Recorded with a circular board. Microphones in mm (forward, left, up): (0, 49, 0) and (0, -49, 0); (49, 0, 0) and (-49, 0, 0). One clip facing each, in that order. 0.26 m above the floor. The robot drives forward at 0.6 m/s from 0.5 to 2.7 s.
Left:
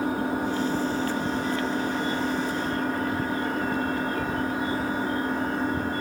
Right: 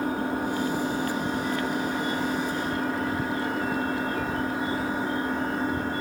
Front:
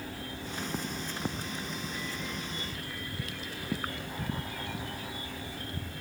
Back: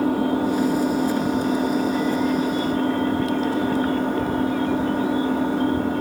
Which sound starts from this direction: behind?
An engine running, at 0.0 s.